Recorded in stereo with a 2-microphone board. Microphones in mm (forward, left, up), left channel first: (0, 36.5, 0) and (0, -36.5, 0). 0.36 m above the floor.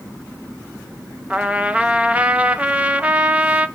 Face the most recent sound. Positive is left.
turn(degrees=-20)  # may be behind; listen again after turning